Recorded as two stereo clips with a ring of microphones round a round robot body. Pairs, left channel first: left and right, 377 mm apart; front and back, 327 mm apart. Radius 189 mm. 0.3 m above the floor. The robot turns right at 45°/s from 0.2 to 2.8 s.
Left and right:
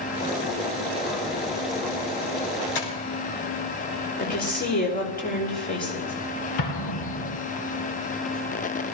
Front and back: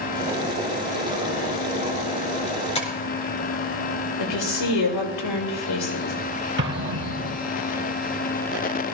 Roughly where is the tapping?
Left.